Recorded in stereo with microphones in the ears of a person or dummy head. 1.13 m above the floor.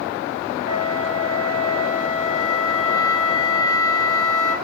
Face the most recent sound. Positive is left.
turn(degrees=-45)  # may be behind; listen again after turning